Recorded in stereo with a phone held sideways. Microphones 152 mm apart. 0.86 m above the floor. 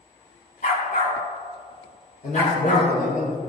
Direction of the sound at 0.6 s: 65° left (ahead or behind).